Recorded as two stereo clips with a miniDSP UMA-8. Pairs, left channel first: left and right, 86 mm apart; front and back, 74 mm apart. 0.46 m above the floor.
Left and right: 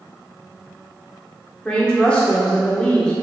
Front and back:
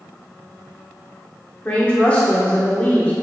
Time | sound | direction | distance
1.6 | a woman speaking | 35° left | 1.1 m